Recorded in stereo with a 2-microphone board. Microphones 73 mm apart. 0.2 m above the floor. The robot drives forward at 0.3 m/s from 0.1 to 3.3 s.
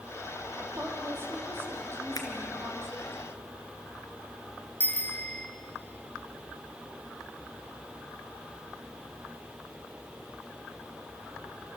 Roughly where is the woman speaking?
Right.